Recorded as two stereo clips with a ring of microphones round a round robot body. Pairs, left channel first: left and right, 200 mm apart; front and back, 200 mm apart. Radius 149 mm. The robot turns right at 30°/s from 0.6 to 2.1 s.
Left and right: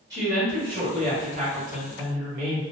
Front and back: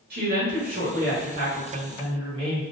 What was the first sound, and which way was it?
A woman speaking, 160° right.